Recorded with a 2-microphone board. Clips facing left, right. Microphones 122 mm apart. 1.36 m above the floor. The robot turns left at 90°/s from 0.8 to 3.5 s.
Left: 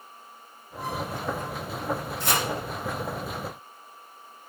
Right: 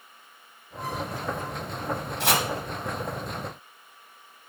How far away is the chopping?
About 1.0 m.